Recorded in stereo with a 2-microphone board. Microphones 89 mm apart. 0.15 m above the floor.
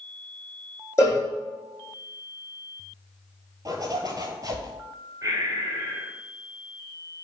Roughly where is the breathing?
Right.